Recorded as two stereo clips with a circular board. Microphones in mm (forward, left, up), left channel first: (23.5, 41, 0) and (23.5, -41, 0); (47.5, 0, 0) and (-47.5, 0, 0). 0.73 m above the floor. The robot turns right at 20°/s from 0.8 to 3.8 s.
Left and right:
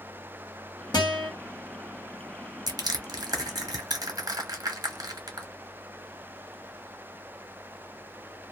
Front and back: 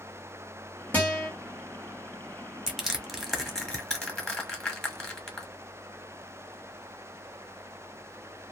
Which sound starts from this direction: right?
Crushing, at 2.7 s.